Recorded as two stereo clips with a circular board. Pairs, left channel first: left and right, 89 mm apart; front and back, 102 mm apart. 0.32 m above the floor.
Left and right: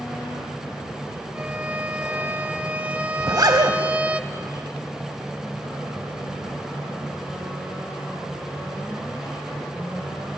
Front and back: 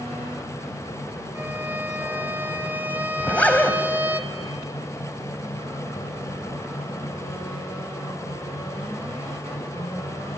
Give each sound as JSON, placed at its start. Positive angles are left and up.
{"t": 1.4, "sound": "a violin", "azimuth_deg": -135, "distance_m": 0.9}
{"t": 3.2, "sound": "a zipper", "azimuth_deg": -70, "distance_m": 1.7}